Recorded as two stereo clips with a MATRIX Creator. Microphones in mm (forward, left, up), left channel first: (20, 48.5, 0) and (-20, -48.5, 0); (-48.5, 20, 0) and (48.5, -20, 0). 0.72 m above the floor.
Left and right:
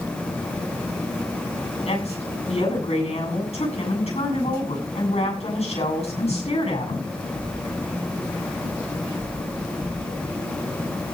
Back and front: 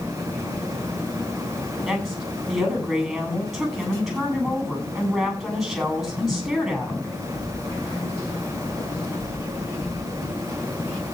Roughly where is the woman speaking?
Ahead left.